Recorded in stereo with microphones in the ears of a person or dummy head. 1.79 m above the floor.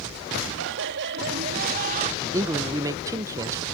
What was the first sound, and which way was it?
Laughter, 65° right (ahead or behind).